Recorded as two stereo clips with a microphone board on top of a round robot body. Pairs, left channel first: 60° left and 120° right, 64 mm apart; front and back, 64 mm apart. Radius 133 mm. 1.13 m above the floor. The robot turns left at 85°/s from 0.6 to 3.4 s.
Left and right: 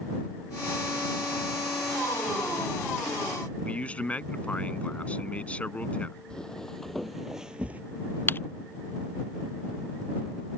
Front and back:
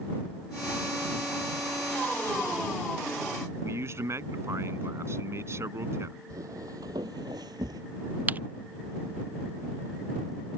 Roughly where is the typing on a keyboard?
Behind left.